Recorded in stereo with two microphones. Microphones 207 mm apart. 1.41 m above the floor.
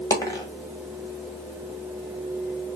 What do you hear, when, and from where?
0.1 s a dropped coin: 15° left (ahead or behind), 1.3 m